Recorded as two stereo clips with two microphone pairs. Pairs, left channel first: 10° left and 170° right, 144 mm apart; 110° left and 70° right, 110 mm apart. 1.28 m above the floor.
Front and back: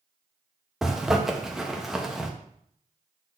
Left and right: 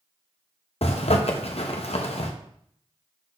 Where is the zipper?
100° left, 0.9 m.